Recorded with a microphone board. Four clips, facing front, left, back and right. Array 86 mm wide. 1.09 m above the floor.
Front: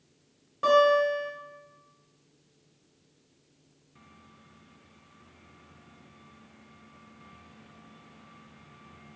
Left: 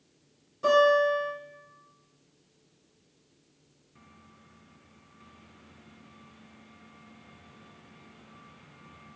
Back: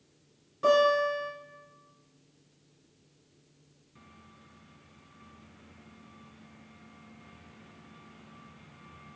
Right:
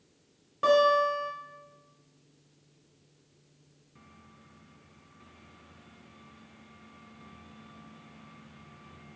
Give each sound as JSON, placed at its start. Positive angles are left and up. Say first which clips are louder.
{"t": 0.6, "sound": "a guitar", "louder": "left 1 dB, front 2 dB", "azimuth_deg": -55, "distance_m": 2.0}